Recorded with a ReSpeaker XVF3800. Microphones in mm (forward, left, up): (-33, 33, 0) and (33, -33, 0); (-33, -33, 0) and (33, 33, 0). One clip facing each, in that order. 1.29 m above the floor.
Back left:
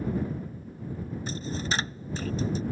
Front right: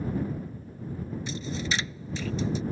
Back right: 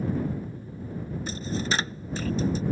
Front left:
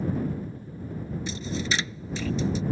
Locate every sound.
1.3 s a dropped coin: straight behind